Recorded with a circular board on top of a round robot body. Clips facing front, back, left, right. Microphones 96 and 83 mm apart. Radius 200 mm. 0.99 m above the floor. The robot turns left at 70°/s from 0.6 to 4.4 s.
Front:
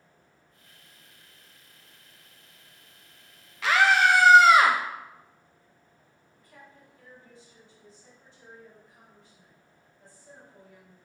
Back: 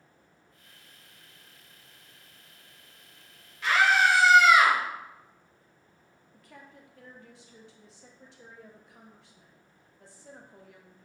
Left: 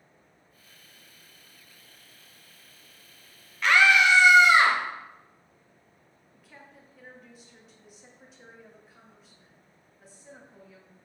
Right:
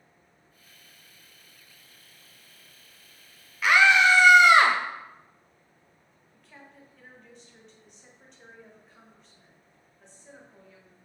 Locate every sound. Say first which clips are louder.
3.6 s a scream: front 2 dB, right 1 dB; 5° right, 0.8 m; by 4.8 s 60° right, 0.8 m
6.3 s a woman speaking: back 2 dB, right 1 dB; 175° left, 0.9 m